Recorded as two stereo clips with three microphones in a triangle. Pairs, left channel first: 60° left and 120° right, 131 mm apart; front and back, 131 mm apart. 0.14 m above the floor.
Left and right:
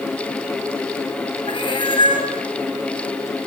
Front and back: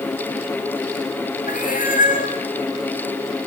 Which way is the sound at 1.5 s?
5° left.